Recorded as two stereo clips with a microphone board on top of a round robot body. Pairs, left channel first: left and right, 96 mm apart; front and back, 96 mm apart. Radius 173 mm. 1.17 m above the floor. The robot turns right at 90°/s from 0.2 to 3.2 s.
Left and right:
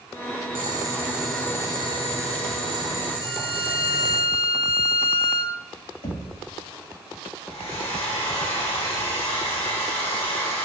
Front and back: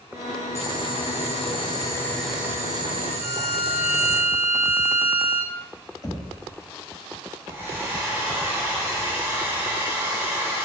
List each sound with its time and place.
0.6 s boiling: 65° right, 1.5 m; by 4.2 s 175° left, 1.5 m
3.2 s a violin: 120° left, 4 m
6.0 s knocking: 60° left, 2 m
7.5 s a hair dryer: 115° left, 4 m